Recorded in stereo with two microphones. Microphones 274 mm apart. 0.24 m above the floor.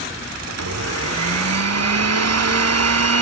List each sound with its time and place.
0.5 s a blender: 65° right (ahead or behind), 0.5 m